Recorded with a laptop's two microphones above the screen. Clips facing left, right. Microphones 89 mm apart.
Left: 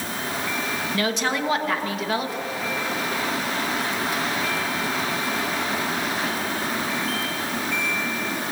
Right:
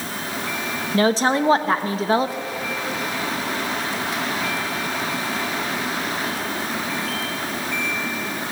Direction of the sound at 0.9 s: 30° right (ahead or behind).